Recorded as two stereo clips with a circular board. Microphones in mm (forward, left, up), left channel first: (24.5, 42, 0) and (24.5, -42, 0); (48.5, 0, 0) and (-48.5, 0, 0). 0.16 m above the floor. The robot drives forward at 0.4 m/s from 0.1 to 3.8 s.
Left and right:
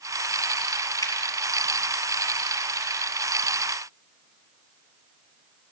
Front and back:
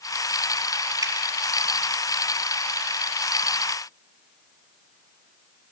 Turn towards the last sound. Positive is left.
turn(degrees=145)